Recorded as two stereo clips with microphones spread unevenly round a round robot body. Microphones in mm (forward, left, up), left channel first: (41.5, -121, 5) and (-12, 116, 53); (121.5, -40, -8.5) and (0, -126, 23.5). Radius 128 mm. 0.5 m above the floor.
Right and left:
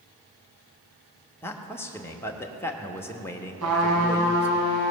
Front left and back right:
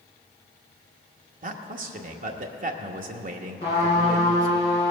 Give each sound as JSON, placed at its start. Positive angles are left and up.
{"t": 1.4, "sound": "a man speaking", "azimuth_deg": -145, "distance_m": 0.9}
{"t": 3.6, "sound": "a trumpet", "azimuth_deg": 100, "distance_m": 5.0}